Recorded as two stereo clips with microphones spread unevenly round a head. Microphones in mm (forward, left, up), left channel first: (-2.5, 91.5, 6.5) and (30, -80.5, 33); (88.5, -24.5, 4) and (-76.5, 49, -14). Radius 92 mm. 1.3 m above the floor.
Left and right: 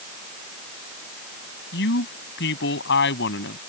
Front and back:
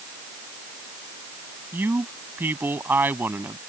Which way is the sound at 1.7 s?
75° left.